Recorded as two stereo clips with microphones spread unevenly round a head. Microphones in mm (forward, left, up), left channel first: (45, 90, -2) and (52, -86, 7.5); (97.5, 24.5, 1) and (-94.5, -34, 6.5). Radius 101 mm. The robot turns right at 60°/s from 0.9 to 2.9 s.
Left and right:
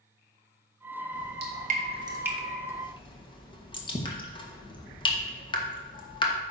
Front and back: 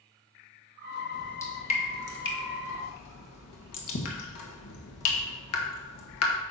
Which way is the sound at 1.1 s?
80° right.